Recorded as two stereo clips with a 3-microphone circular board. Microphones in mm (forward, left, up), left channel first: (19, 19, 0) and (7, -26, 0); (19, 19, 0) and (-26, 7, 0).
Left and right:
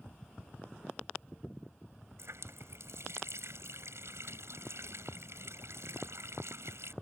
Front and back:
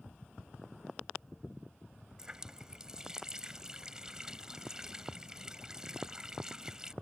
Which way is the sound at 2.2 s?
85° right.